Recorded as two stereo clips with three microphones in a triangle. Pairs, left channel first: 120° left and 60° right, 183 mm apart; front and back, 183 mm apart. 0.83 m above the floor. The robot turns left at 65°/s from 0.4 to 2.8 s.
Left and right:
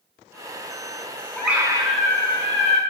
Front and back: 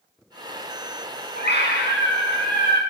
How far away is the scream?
About 7 m.